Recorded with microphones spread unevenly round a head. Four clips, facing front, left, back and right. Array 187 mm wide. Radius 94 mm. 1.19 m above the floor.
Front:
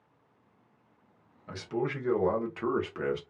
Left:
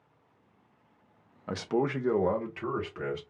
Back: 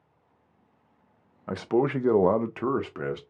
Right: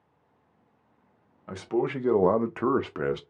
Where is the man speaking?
160° left, 0.6 m; by 3.2 s 95° right, 0.8 m.